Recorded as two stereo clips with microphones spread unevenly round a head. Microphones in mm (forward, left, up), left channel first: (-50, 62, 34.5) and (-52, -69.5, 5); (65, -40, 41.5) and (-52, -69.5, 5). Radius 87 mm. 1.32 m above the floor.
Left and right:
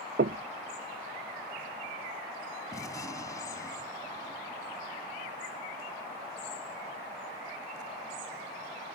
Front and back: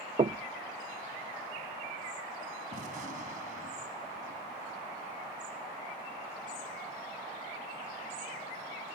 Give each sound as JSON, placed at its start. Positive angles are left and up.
{"t": 0.2, "sound": "knocking", "azimuth_deg": -110}
{"t": 2.7, "sound": "a gunshot", "azimuth_deg": 155}